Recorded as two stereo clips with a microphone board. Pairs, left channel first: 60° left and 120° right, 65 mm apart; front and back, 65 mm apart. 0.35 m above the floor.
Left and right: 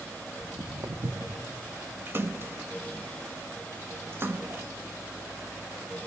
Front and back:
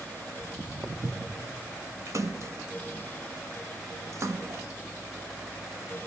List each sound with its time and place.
0.4 s footsteps: 115° right, 2 m; by 1.4 s 130° right, 0.8 m
2.1 s a splash: 165° right, 0.8 m